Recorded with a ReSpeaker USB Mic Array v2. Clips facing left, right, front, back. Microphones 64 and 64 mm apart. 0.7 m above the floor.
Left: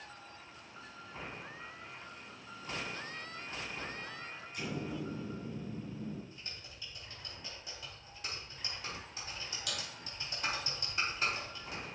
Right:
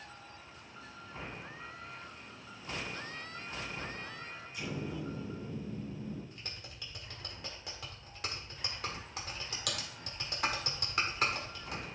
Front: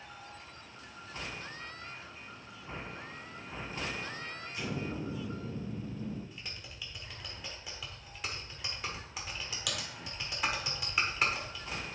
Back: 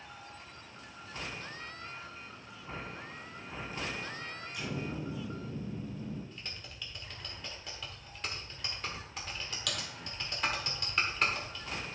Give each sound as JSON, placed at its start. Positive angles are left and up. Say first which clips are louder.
{"t": 4.5, "sound": "an explosion", "louder": "even, front 1 dB", "azimuth_deg": 50, "distance_m": 4.0}
{"t": 6.3, "sound": "typing on a keyboard", "louder": "right 2 dB, even", "azimuth_deg": -85, "distance_m": 1.5}